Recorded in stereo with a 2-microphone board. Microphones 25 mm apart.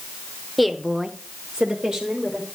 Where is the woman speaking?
Centre (ahead or behind), 1.1 m; by 2.5 s 35° right (ahead or behind), 2.5 m.